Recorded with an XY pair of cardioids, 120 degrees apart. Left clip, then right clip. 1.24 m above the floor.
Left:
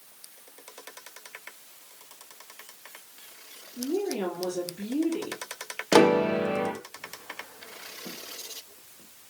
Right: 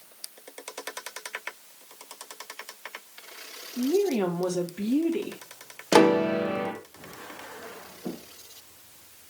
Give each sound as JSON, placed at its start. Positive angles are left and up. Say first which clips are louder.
{"t": 3.8, "sound": "a woman speaking", "louder": "right 5 dB", "azimuth_deg": -40, "distance_m": 3.0}
{"t": 5.9, "sound": "a piano", "louder": "even", "azimuth_deg": 0, "distance_m": 1.4}